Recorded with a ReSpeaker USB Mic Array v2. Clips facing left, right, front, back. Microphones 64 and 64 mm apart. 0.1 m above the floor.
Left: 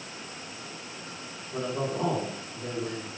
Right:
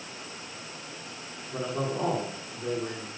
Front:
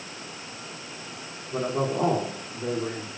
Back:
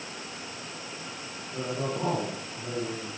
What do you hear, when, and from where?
1.5 s a man speaking: 5° right, 8 m